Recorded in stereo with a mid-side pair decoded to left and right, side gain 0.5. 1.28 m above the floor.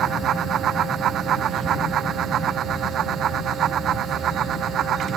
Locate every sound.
0.0 s a fan: 60° right